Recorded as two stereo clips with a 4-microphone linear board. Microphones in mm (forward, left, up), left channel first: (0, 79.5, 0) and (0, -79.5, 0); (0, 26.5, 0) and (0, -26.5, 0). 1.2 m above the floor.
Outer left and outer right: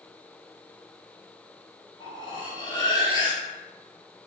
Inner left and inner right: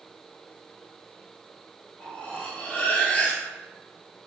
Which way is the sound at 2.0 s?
25° left (ahead or behind).